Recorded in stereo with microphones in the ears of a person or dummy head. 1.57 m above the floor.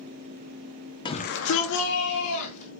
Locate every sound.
1.1 s a shout: 20° left (ahead or behind), 0.6 m; by 2.7 s 40° left (ahead or behind), 1.8 m